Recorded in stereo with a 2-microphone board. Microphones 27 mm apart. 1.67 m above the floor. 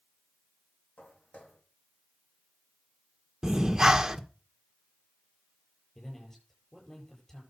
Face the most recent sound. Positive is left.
turn(degrees=15)  # may be behind; listen again after turning